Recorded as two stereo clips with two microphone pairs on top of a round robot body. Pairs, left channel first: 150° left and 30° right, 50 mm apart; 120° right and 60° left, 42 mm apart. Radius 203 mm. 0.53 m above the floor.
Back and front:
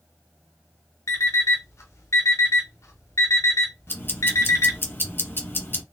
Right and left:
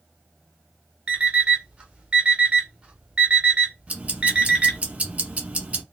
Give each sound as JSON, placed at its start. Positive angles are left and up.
{"t": 1.1, "sound": "an alarm clock", "azimuth_deg": 120, "distance_m": 0.7}
{"t": 3.9, "sound": "ticking", "azimuth_deg": 105, "distance_m": 1.9}